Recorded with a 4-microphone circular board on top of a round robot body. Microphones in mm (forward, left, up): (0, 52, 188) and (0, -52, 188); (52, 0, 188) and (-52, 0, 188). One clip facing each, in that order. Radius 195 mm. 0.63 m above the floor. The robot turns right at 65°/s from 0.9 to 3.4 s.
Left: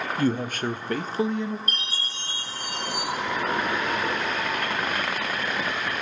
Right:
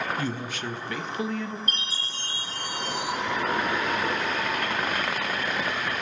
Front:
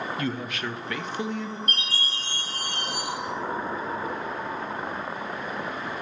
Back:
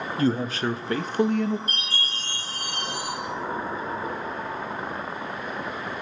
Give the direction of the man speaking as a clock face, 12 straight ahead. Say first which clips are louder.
Left 6 dB, back 6 dB; 8 o'clock.